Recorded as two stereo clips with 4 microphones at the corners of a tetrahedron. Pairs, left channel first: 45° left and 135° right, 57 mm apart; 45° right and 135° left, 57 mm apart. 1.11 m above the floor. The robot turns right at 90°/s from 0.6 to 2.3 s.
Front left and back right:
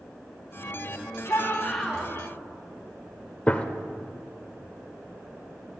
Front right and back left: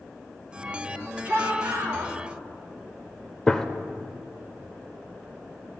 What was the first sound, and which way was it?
A shout, 85° left.